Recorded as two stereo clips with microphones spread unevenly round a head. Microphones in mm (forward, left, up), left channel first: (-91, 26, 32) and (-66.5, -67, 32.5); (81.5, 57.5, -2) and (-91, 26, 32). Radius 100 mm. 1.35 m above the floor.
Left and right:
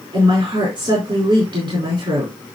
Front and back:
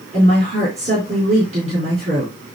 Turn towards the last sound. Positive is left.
turn(degrees=-110)